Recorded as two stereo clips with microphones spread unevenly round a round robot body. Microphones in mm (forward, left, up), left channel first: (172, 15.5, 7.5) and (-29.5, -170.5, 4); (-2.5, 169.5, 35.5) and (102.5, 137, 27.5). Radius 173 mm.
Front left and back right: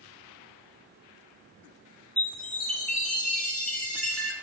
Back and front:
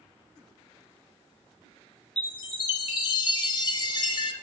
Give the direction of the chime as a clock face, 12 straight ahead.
8 o'clock.